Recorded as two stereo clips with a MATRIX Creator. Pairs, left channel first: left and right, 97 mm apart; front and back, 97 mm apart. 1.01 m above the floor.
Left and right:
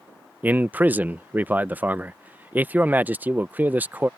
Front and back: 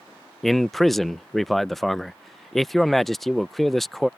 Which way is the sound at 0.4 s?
85° right.